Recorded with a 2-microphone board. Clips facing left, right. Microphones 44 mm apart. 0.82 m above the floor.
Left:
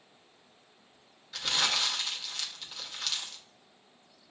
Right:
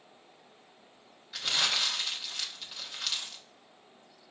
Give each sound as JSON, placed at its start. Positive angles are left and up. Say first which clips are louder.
{"t": 1.3, "sound": "crumpling", "louder": "even", "side_deg": -5, "distance_m": 0.8}